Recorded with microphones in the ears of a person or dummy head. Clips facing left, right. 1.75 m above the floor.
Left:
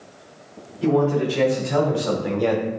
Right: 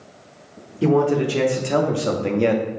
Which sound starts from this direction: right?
A man speaking, at 0.8 s.